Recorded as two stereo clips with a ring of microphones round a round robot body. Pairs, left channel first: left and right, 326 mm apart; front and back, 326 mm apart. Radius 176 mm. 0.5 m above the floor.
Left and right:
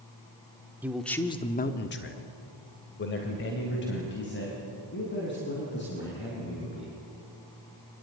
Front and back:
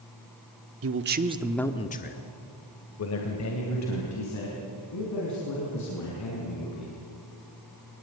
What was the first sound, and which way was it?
A man speaking, 170° right.